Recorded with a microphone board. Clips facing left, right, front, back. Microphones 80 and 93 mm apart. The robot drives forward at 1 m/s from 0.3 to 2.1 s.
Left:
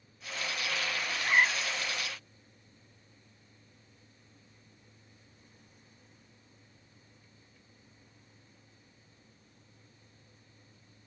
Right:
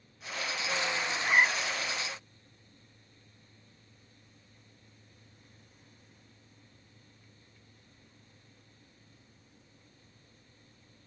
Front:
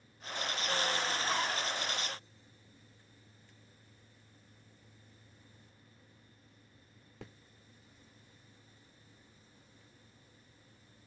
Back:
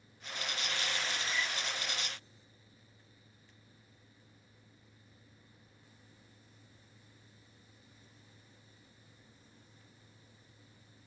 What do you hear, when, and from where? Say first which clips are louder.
1.1 s a zipper: even, front 4 dB; 10° right; by 1.9 s 15° right